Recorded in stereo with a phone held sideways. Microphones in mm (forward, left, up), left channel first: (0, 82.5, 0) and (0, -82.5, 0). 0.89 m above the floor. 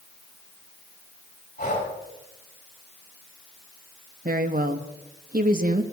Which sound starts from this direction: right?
A woman speaking, at 4.2 s.